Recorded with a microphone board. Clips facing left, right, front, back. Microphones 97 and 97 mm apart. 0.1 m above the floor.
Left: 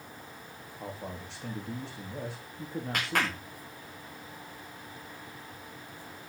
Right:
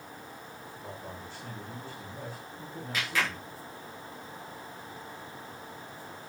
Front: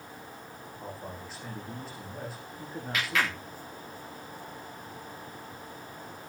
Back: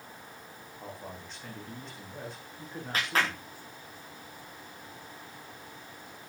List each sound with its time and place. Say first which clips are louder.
0.8 s a man speaking: left 4 dB, front 2 dB; 85° left, 7 m
2.9 s a clap: left 1 dB, even; 125° left, 9.5 m